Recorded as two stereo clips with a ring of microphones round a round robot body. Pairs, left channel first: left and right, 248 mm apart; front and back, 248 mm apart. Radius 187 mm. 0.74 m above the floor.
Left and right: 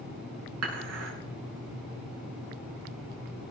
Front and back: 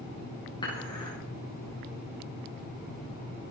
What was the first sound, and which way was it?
Dishes clattering, 75° right.